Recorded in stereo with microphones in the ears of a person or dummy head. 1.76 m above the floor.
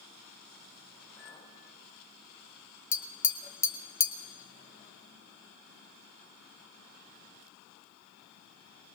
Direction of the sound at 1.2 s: 25° left (ahead or behind).